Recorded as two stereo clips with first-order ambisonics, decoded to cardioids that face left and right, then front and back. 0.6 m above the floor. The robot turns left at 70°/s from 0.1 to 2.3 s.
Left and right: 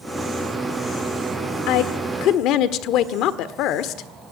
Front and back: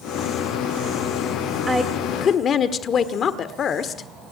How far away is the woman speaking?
About 1.3 m.